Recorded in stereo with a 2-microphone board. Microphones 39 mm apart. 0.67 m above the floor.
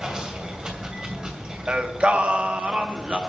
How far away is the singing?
About 1.2 m.